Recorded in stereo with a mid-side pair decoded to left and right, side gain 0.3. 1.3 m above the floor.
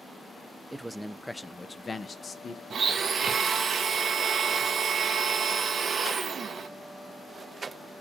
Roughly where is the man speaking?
Ahead.